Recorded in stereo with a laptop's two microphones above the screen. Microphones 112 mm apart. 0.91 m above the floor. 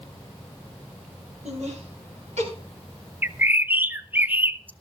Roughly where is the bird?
Centre.